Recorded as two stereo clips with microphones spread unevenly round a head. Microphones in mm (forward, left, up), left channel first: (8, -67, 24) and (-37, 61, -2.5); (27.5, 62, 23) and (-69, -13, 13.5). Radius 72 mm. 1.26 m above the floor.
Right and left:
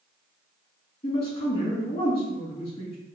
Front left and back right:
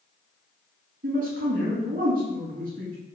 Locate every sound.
1.0 s a man speaking: 120° right, 1.7 m